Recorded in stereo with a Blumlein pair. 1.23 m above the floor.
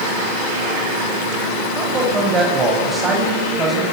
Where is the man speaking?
20° right, 9 m; by 3.9 s 15° right, 10.5 m.